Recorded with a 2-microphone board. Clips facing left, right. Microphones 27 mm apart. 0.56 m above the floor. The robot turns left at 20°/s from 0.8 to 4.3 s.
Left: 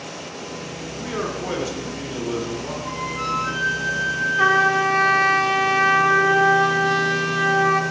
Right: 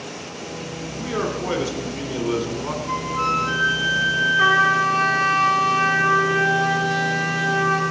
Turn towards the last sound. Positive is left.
turn(degrees=25)  # may be behind; listen again after turning